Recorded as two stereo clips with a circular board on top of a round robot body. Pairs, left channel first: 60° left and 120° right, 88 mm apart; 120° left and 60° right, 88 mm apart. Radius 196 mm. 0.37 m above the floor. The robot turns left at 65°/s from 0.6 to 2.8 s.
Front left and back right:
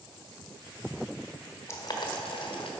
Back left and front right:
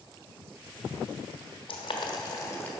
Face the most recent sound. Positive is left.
turn(degrees=45)